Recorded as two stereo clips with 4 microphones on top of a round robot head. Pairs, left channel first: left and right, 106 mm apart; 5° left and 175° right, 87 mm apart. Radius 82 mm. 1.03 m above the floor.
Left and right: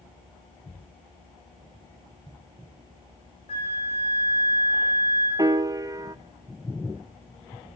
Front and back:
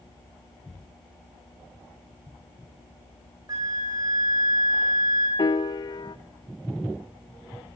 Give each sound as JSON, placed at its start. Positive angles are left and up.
{"t": 3.5, "sound": "a flute", "azimuth_deg": 140, "distance_m": 5.5}
{"t": 5.4, "sound": "a piano", "azimuth_deg": -35, "distance_m": 0.6}